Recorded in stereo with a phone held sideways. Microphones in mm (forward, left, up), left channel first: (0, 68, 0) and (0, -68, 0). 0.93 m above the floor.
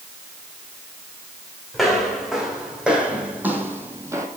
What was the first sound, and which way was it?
Footsteps, centre (ahead or behind).